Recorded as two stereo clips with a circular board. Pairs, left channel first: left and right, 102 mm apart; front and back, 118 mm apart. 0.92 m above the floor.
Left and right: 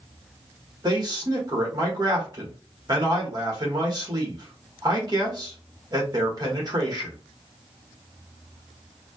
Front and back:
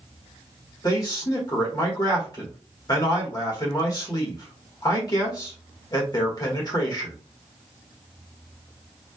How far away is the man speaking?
About 1.3 m.